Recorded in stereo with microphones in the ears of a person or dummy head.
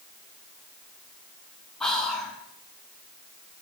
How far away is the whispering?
About 0.8 m.